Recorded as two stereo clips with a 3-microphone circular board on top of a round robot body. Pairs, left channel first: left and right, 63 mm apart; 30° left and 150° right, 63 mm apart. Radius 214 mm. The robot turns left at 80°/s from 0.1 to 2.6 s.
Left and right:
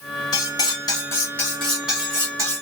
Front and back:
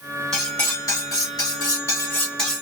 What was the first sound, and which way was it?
Cutlery clinking, 115° left.